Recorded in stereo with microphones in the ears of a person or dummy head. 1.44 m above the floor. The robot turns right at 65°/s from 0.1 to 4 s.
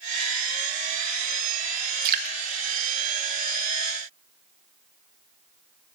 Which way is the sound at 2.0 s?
50° right (ahead or behind).